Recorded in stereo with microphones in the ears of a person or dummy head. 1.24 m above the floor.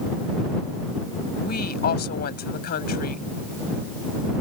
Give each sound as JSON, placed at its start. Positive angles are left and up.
{"t": 1.4, "sound": "a woman speaking", "side_deg": 50}